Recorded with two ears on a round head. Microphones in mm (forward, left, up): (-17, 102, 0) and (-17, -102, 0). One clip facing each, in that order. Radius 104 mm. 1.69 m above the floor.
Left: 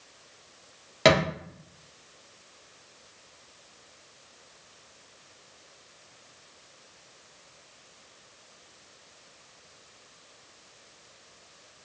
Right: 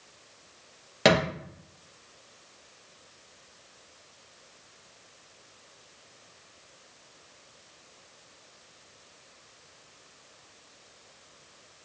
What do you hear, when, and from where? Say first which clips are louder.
1.1 s a thud: left 1 dB; 5° right (ahead or behind), 1.0 m